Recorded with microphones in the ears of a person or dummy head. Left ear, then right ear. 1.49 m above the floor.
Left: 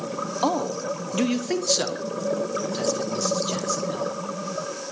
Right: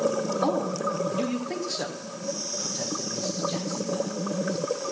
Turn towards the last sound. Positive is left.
turn(degrees=75)  # may be behind; listen again after turning